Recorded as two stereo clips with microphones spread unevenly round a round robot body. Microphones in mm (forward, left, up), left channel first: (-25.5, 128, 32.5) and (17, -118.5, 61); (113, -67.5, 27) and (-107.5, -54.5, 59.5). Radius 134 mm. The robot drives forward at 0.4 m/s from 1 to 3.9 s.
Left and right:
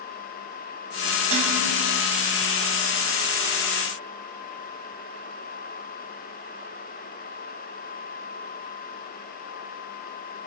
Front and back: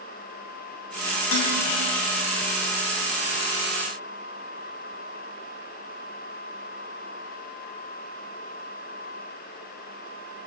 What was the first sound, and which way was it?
Dishes clattering, 15° right.